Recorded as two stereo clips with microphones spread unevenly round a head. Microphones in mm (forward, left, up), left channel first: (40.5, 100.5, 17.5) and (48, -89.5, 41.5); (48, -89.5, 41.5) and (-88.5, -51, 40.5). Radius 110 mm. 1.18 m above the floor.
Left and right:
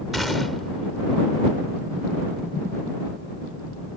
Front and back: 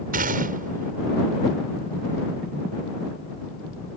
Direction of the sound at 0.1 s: 175° right.